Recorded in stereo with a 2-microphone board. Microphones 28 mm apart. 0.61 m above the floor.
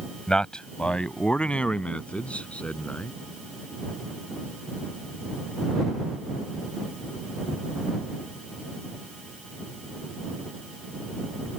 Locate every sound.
0.3 s a man speaking: 30° left (ahead or behind); by 3.1 s 55° left (ahead or behind)